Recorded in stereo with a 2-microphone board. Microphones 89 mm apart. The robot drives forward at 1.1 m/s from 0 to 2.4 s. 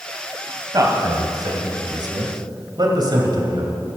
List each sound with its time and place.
0.7 s a man speaking: 40° right (ahead or behind), 2.5 m; by 3.7 s 55° right (ahead or behind), 2 m